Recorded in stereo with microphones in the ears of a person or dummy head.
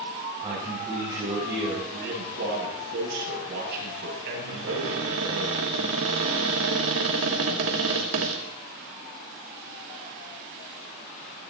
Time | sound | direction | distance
0.4 | a man speaking | 20° right (ahead or behind) | 6 m
1.9 | a man speaking | 60° right (ahead or behind) | 8 m
4.5 | a cupboard door | 75° right (ahead or behind) | 2.5 m